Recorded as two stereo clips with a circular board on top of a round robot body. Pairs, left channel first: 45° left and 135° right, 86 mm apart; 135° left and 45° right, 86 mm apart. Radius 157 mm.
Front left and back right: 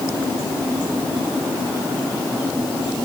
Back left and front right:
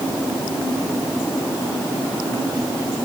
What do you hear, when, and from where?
Only background noise.